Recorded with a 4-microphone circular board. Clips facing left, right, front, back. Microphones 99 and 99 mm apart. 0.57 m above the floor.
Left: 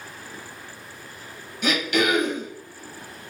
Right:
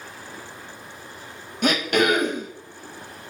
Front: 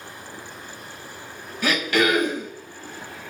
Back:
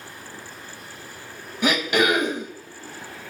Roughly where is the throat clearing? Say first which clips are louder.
Right 2 dB, back 1 dB; behind right.